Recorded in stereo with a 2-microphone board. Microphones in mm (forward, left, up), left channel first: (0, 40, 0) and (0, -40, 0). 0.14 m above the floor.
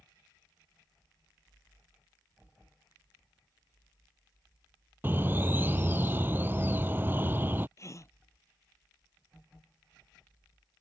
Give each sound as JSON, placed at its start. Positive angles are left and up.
{"t": 5.0, "sound": "a bird", "side_deg": -30}
{"t": 7.8, "sound": "a gasp", "side_deg": 40}